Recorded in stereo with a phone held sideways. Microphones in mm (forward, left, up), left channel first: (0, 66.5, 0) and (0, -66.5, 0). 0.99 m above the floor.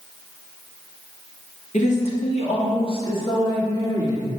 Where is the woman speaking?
60° left (ahead or behind), 1.8 m; by 4.4 s 25° left (ahead or behind), 2.5 m.